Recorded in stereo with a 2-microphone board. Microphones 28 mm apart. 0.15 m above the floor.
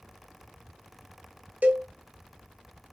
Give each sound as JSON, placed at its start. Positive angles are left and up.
{"t": 1.6, "sound": "a cowbell", "side_deg": -70, "distance_m": 0.6}